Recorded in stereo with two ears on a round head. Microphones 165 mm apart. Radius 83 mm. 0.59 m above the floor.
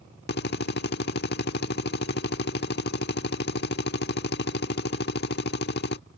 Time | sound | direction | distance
0.3 | a drill | 60° left (ahead or behind) | ?